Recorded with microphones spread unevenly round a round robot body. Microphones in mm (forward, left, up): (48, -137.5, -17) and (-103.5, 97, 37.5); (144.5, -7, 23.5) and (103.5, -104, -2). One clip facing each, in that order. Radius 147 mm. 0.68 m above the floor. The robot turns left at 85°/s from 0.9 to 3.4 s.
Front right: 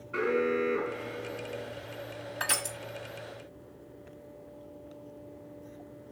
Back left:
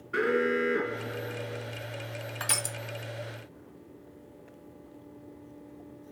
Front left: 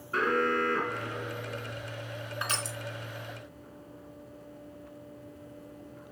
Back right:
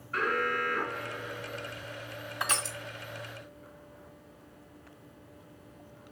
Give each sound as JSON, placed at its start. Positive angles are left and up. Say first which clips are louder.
{"t": 0.1, "sound": "an alarm", "louder": "back left 1 dB, front left 3 dB", "azimuth_deg": 115, "distance_m": 1.7}
{"t": 2.4, "sound": "crushing", "louder": "front right 1 dB, back right 3 dB", "azimuth_deg": -155, "distance_m": 1.5}